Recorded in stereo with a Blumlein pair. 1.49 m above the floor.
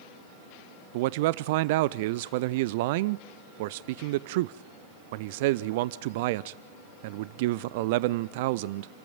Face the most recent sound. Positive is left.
turn(degrees=-50)